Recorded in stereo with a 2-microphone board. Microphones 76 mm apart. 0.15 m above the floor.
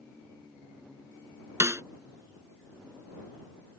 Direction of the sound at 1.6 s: 35° right (ahead or behind).